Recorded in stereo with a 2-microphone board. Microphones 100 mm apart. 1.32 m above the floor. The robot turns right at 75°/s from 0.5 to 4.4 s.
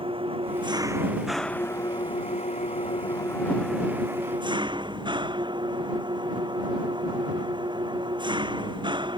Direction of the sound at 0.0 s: 60° right.